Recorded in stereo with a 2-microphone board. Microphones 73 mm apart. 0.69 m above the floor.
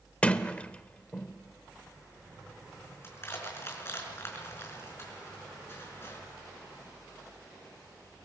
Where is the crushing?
35° left (ahead or behind), 5 m.